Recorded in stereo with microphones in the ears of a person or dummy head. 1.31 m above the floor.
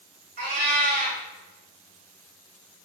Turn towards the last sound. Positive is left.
turn(degrees=-45)  # may be behind; listen again after turning